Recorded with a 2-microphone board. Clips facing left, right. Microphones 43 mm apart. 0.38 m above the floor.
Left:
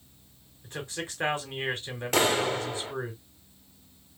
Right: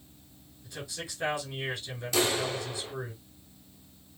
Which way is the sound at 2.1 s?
50° left (ahead or behind).